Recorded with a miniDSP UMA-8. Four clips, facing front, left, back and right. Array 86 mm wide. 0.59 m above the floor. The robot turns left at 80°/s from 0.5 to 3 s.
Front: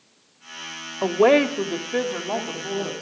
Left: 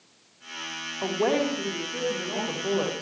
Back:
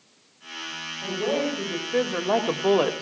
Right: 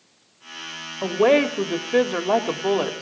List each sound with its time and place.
1.0 s a woman speaking: 15° right, 2 m; by 3.0 s 170° right, 2 m